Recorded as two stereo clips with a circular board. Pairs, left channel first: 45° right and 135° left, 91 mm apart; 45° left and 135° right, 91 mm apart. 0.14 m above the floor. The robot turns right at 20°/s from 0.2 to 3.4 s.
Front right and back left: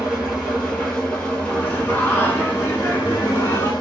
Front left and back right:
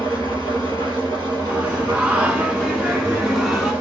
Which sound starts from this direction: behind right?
An engine running, at 0.0 s.